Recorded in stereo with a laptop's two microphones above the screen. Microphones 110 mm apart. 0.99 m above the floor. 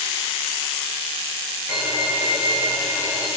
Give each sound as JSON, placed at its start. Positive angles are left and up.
{"t": 1.7, "sound": "a violin", "side_deg": -20, "distance_m": 6.0}